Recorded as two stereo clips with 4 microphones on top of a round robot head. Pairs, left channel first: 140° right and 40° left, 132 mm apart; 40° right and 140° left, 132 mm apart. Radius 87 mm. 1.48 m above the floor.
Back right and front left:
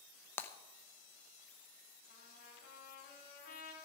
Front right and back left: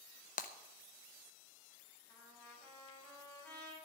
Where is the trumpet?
125° right, 6 m.